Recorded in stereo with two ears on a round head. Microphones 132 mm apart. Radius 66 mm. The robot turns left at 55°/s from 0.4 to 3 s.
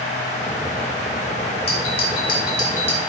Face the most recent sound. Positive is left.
turn(degrees=20)